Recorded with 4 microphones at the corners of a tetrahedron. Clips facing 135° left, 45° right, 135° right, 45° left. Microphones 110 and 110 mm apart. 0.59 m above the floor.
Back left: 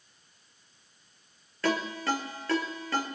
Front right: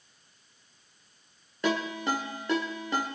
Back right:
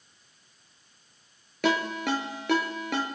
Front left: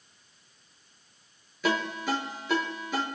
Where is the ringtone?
115° right, 4.5 m.